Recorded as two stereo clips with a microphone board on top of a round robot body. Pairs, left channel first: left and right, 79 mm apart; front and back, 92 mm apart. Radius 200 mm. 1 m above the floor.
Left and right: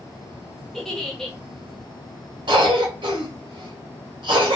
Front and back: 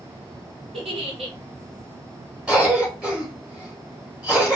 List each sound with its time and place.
0.7 s a giggle: 175° left, 0.9 m
2.5 s a cough: 95° right, 1.0 m